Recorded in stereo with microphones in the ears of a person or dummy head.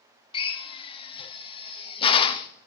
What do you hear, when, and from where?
0.3 s a drill: 30° left (ahead or behind), 0.6 m